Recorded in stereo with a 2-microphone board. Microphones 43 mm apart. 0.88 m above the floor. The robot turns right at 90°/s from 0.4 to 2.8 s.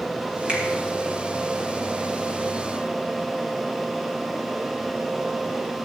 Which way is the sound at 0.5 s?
25° right (ahead or behind).